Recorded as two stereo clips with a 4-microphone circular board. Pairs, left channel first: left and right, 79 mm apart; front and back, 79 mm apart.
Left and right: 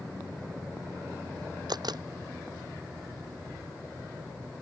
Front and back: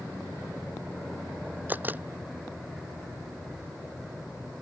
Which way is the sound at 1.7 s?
115° right.